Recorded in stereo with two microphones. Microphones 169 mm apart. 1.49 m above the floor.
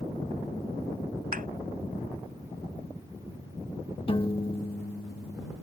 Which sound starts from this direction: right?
A thud, at 1.3 s.